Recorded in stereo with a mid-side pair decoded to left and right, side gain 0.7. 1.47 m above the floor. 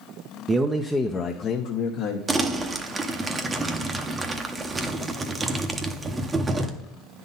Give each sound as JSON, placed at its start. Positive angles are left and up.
{"t": 0.5, "sound": "a man speaking", "azimuth_deg": -25, "distance_m": 0.6}
{"t": 2.3, "sound": "crumpling", "azimuth_deg": -20, "distance_m": 0.8}